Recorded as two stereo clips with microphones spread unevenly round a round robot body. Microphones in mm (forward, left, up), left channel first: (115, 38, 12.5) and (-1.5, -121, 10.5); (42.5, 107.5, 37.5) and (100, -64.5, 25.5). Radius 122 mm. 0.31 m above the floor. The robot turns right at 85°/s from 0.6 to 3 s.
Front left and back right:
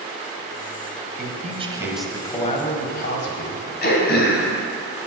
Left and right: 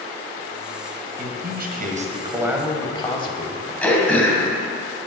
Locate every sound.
1.2 s a man speaking: 105° right, 1.9 m; by 3.7 s 50° left, 1.9 m
3.8 s throat clearing: 25° left, 2.5 m